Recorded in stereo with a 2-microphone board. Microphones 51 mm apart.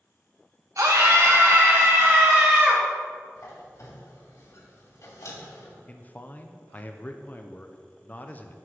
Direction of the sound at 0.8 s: 70° right (ahead or behind).